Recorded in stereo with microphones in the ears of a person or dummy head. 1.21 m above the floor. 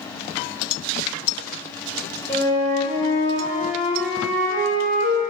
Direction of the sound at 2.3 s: 15° left (ahead or behind).